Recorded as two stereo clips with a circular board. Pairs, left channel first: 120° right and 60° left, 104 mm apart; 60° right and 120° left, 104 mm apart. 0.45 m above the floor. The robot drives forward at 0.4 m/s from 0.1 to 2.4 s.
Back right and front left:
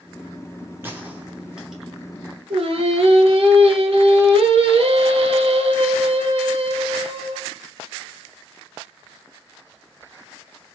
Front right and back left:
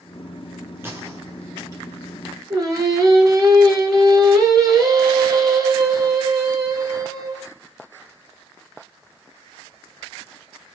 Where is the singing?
70° left, 0.8 m.